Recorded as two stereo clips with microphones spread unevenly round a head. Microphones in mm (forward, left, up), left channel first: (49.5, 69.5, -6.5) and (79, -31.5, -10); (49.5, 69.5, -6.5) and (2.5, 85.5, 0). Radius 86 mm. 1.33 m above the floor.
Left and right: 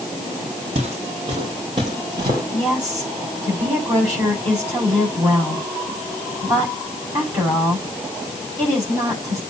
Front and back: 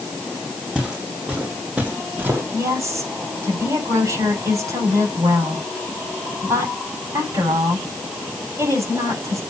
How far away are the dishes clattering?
I don't hear dishes clattering.